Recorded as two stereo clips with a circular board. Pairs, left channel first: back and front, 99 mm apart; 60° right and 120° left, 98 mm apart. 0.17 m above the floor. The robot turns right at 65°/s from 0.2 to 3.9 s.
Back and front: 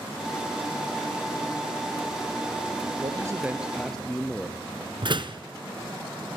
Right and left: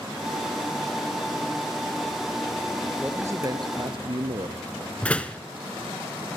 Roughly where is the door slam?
Ahead.